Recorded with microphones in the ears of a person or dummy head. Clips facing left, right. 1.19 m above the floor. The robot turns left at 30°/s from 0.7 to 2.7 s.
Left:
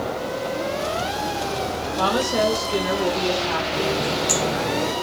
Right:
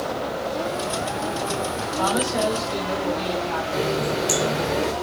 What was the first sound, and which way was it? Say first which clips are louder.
A woman speaking: left 2 dB; 45° left (ahead or behind).